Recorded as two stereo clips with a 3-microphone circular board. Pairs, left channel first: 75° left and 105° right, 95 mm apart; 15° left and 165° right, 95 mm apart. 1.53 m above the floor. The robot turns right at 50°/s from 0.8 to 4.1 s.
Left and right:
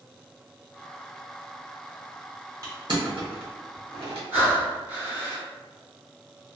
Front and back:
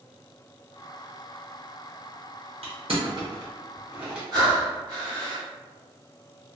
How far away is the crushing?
About 0.9 m.